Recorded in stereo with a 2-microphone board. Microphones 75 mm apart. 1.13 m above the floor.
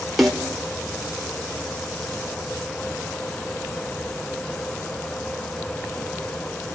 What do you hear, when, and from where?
0.2 s a snare drum: centre (ahead or behind), 2.5 m